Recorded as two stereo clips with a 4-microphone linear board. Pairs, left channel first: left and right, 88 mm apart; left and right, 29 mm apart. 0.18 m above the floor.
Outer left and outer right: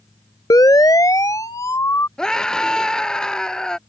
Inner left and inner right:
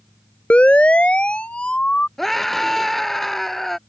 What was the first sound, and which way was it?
A siren, 45° left (ahead or behind).